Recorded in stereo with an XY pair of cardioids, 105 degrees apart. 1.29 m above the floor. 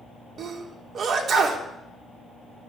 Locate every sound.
0.4 s a sneeze: 55° right, 3 m